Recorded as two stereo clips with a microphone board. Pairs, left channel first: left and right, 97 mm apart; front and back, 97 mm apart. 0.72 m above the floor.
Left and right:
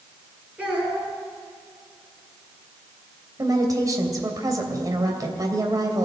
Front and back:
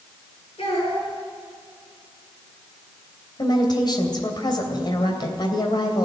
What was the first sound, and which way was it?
A child speaking, 15° right.